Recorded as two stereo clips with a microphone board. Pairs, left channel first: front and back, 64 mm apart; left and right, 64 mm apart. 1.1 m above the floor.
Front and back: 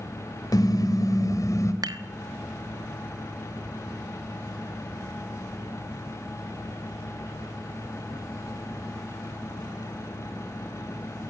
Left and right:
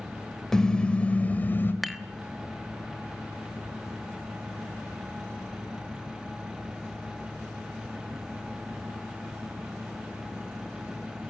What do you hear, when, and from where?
0.5 s a car horn: 10° left, 2 m; by 1.7 s 35° left, 2.5 m
1.8 s dishes clattering: straight behind, 1.1 m